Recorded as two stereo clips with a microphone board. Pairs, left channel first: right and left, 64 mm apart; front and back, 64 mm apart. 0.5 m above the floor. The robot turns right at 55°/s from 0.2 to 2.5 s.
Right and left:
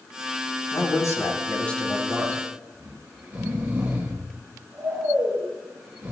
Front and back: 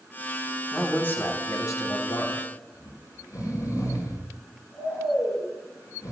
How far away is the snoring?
About 6 m.